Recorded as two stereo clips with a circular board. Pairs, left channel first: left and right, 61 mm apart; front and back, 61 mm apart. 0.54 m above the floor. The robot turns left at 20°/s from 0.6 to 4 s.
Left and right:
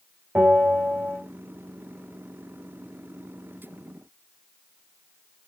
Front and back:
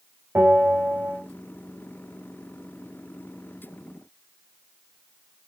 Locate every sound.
0.3 s a bell: 140° right, 2.5 m; by 1.2 s 150° right, 2.5 m